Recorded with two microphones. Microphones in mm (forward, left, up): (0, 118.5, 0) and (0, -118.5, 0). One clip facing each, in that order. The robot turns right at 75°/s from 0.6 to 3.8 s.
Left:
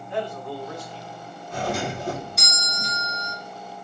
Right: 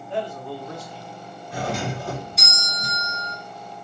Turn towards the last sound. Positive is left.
turn(degrees=155)